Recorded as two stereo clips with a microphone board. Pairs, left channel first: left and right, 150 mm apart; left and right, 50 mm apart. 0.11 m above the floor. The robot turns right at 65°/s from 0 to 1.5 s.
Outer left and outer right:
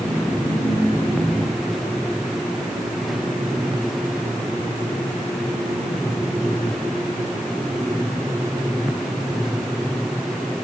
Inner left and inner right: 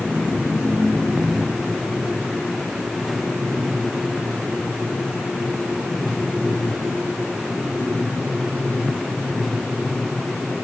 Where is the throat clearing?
I don't hear throat clearing.